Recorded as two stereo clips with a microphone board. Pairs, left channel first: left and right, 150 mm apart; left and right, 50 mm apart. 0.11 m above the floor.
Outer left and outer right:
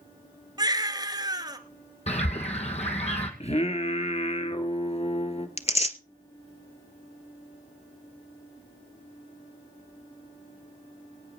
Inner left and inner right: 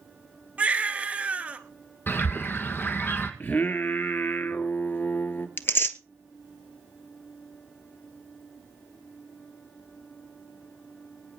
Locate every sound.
0.6 s a baby crying: 30° right (ahead or behind), 1.3 m
2.1 s a bird: 50° left (ahead or behind), 2 m
3.4 s singing: 50° left (ahead or behind), 1.4 m
5.6 s tearing paper: 50° left (ahead or behind), 0.8 m